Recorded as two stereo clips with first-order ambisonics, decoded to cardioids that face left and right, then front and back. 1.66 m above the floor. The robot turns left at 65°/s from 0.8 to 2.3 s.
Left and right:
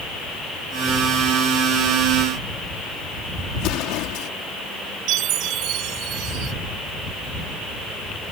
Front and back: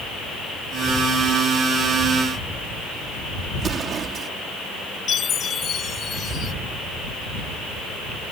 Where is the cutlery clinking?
I don't hear cutlery clinking.